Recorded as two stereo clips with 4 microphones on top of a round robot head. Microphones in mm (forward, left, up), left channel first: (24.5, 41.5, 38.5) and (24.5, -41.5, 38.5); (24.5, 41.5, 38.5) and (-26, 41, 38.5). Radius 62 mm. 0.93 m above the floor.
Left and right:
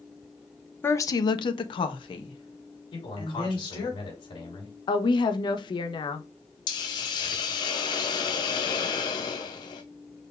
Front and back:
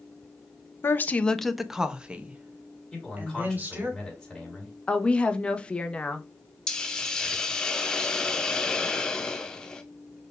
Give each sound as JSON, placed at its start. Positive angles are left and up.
{"t": 0.8, "sound": "a woman speaking", "azimuth_deg": 30, "distance_m": 0.5}
{"t": 2.9, "sound": "a man speaking", "azimuth_deg": 90, "distance_m": 3.0}
{"t": 4.9, "sound": "a woman speaking", "azimuth_deg": 70, "distance_m": 0.8}
{"t": 6.7, "sound": "a hiss", "azimuth_deg": 70, "distance_m": 0.6}